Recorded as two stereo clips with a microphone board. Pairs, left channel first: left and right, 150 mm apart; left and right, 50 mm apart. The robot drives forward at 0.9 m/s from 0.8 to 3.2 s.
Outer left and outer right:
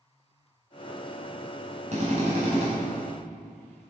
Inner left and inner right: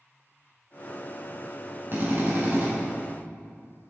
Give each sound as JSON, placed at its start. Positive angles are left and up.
{"t": 1.9, "sound": "a drill", "side_deg": -50, "distance_m": 5.5}